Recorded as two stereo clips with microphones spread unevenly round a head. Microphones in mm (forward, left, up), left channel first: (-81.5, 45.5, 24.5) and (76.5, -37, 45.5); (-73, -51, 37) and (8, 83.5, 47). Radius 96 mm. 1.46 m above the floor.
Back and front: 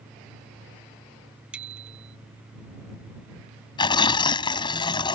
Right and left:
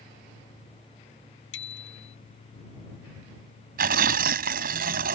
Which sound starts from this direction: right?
A bicycle bell, at 1.5 s.